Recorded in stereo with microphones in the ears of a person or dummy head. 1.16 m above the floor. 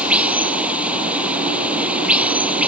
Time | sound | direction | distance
0.0 | running water | centre (ahead or behind) | ?